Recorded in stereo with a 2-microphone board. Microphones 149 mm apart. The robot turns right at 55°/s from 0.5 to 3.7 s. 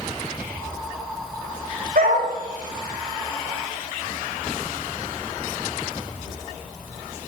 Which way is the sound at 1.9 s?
70° right (ahead or behind).